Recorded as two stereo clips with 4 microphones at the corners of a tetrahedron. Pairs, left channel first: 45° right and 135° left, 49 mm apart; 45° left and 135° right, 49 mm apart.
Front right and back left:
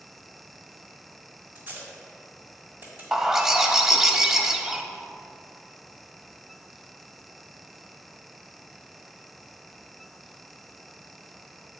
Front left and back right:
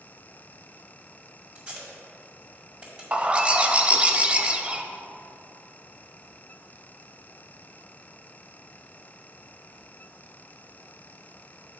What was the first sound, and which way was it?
Tape being pulled, 165° left.